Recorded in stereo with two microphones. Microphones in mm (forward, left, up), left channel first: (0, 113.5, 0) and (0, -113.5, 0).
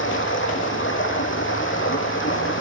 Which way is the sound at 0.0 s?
60° left (ahead or behind).